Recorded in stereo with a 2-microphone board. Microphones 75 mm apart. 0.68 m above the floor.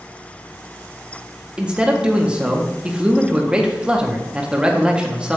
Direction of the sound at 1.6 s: 15° right (ahead or behind).